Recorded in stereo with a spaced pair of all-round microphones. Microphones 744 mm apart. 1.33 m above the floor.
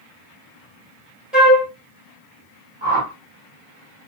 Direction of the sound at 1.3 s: Centre (ahead or behind).